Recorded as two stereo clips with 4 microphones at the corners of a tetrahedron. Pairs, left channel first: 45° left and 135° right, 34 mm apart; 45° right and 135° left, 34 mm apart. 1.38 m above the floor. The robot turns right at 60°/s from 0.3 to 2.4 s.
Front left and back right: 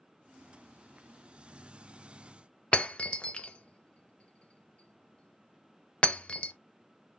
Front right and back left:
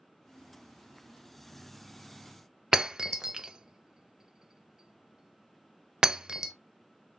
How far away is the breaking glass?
About 0.5 m.